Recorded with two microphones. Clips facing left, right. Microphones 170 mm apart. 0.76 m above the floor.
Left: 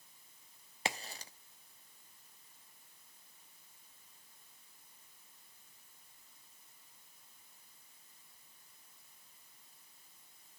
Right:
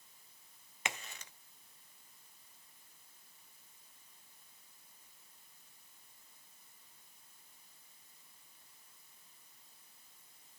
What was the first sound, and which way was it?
A crack, 35° left (ahead or behind).